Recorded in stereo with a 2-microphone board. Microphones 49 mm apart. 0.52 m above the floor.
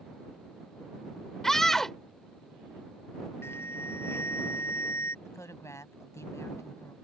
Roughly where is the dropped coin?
No dropped coin in this recording.